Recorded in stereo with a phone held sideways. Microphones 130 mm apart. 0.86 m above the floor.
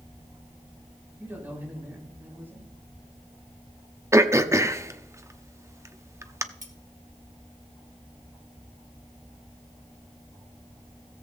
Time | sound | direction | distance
1.2 | a man speaking | 15° right (ahead or behind) | 6.5 m
4.1 | throat clearing | 20° right (ahead or behind) | 0.7 m
6.6 | cutlery clinking | 70° right (ahead or behind) | 1.8 m